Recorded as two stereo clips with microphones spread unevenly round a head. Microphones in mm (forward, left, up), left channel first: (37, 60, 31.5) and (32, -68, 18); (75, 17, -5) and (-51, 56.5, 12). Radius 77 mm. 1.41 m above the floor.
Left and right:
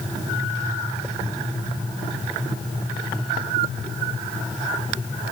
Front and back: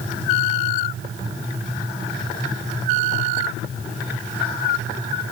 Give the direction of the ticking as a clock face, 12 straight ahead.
I don't hear ticking.